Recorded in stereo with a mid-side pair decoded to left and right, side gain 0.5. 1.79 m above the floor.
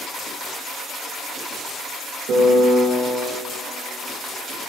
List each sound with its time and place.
2.3 s a piano: 70° right, 1.1 m